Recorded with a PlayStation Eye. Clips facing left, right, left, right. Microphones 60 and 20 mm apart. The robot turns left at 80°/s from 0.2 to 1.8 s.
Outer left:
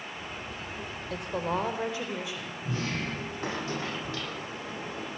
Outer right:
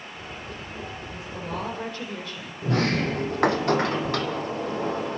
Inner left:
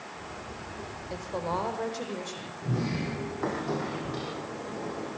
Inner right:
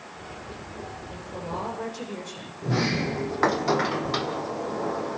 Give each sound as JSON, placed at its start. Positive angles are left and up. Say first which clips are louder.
{"t": 1.1, "sound": "a woman speaking", "louder": "outer left 5 dB, inner left 4 dB", "azimuth_deg": 65, "distance_m": 7.0}
{"t": 2.6, "sound": "a sliding door", "louder": "outer right 10 dB, inner right 6 dB", "side_deg": -60, "distance_m": 2.5}